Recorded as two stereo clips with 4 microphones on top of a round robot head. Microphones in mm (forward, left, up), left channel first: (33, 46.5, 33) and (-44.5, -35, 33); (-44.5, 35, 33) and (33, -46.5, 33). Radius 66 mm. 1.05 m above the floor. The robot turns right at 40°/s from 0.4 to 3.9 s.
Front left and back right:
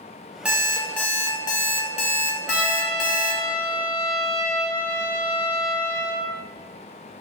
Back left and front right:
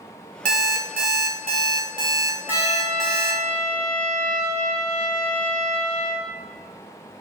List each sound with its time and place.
0.5 s an alarm clock: 55° right, 0.5 m; by 3.4 s 65° left, 0.5 m
2.5 s a trumpet: 140° left, 1.6 m; by 6.3 s 160° right, 1.6 m